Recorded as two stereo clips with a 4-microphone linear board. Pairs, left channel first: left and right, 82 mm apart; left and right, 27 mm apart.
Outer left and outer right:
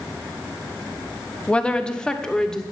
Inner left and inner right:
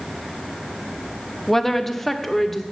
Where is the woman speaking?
15° left (ahead or behind), 0.8 m; by 2.6 s 5° left (ahead or behind), 1.6 m.